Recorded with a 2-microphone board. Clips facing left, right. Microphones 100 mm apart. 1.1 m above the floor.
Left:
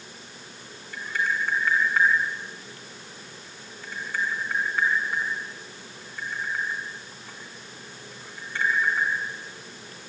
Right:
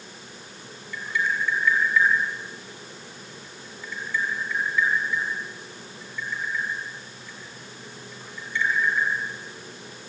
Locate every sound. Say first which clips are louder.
0.9 s tapping: right 1 dB; 50° left (ahead or behind), 6 m